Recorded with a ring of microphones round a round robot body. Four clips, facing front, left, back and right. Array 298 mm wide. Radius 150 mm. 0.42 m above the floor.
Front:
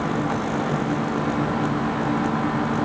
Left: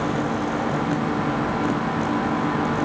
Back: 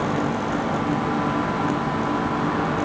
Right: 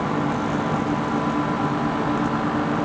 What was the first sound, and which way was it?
Only background noise.